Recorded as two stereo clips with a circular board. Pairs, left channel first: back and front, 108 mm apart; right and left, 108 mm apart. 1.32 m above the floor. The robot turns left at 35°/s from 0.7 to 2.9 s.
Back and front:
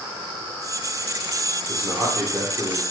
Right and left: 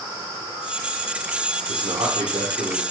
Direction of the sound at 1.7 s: 90° left.